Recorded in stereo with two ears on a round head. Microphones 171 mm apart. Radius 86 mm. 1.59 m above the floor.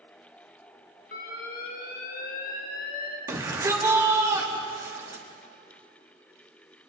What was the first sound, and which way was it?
An alarm, 50° left (ahead or behind).